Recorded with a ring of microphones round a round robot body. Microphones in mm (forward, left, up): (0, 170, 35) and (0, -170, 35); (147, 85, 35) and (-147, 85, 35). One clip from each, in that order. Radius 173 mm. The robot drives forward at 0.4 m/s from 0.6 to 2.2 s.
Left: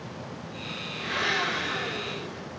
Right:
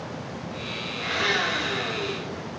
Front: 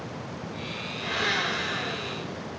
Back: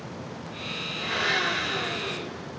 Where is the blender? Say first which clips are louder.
Right 3 dB, back 1 dB; 100° right, 1.7 m; by 2.5 s 115° right, 1.8 m.